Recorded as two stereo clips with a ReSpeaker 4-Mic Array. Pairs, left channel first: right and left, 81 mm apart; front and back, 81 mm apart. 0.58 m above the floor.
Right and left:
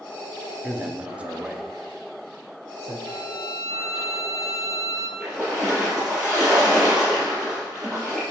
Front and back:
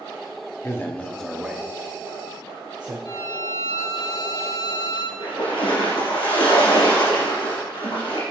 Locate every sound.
0.6 s a man speaking: 30° left, 0.7 m; by 3.0 s straight behind, 1.1 m
3.0 s a violin: 35° right, 1.9 m
5.2 s a splash: 5° left, 3 m